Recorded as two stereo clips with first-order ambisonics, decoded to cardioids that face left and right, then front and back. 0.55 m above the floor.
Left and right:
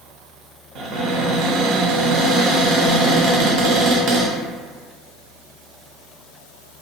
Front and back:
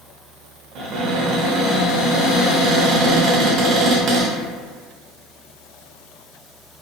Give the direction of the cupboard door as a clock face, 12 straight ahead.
4 o'clock.